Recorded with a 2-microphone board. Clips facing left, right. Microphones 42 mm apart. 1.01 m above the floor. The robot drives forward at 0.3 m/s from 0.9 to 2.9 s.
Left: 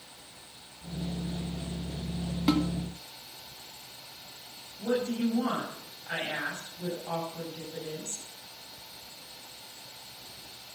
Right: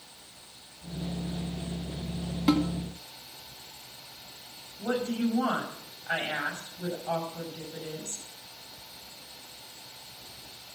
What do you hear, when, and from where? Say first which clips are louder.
2.5 s a snare drum: right 2 dB; 5° right (ahead or behind), 1.1 m
4.8 s a woman speaking: even; 40° right (ahead or behind), 6 m